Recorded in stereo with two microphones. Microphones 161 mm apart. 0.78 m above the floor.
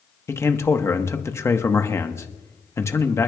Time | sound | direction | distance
0.3 | a man speaking | 15° left (ahead or behind) | 0.9 m